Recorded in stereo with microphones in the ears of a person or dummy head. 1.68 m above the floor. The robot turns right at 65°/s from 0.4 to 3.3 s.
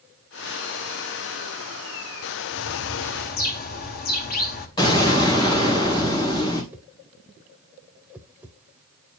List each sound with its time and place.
2.5 s a bird: 80° left, 0.8 m; by 4.7 s 135° left, 0.8 m
4.8 s an explosion: 30° left (ahead or behind), 2.5 m
6.7 s a whoosh: 10° right (ahead or behind), 0.7 m